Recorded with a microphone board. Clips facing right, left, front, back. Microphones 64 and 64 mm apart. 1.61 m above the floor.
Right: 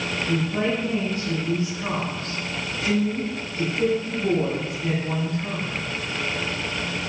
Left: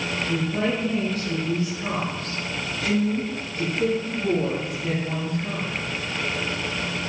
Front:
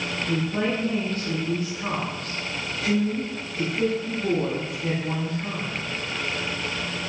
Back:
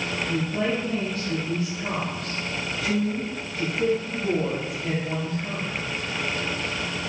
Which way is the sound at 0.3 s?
30° right.